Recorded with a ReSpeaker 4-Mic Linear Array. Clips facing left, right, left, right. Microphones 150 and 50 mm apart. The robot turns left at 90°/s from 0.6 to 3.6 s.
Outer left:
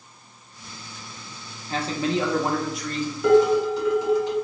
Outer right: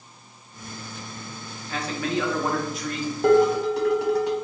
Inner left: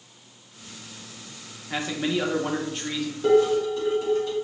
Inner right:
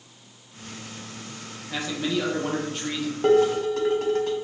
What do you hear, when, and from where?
1.7 s a man speaking: 95° left, 0.8 m; by 3.1 s 35° right, 0.8 m
3.2 s dishes clattering: 45° right, 1.4 m; by 4.3 s 80° right, 1.4 m